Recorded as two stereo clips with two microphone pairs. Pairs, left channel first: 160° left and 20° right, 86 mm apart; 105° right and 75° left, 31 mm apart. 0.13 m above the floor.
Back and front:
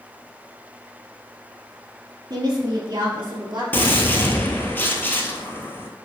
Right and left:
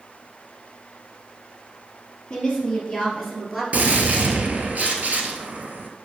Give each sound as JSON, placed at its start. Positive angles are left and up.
{"t": 2.3, "sound": "a woman speaking", "azimuth_deg": -40, "distance_m": 3.0}
{"t": 3.7, "sound": "a gunshot", "azimuth_deg": 95, "distance_m": 1.0}